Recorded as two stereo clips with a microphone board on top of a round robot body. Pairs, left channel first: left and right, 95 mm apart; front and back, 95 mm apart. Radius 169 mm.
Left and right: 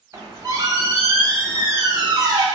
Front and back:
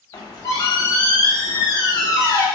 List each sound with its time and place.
0.1 s a squeak: 40° right, 1.1 m